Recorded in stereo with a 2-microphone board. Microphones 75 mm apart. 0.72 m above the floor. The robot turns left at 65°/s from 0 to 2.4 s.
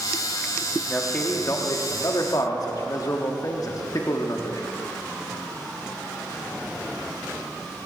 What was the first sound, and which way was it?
A man speaking, 170° left.